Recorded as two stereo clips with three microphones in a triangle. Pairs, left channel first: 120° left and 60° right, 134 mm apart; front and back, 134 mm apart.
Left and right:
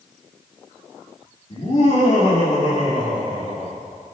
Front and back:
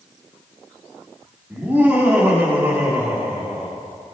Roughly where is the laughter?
Left.